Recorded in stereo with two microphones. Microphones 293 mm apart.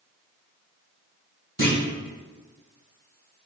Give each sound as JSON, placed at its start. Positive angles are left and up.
{"t": 1.6, "sound": "a clunk", "side_deg": 35, "distance_m": 1.7}